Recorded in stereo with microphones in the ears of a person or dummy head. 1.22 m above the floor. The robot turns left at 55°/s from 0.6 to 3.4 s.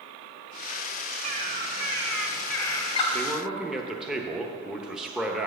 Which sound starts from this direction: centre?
A man speaking, at 3.1 s.